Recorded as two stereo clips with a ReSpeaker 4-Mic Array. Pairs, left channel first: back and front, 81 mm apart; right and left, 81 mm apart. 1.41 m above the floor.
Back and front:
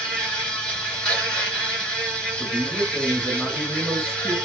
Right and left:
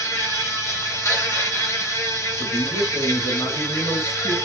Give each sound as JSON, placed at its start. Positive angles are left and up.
{"t": 0.0, "sound": "an insect", "azimuth_deg": -110, "distance_m": 1.7}
{"t": 2.4, "sound": "a man speaking", "azimuth_deg": -85, "distance_m": 1.3}